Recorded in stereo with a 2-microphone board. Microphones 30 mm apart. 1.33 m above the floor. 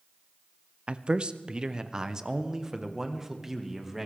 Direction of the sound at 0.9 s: 40° right (ahead or behind).